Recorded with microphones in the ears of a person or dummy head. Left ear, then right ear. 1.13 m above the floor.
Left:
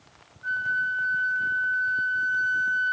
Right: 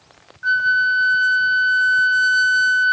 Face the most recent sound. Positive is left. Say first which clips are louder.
# right 10 dB
turn(degrees=-75)  # may be behind; listen again after turning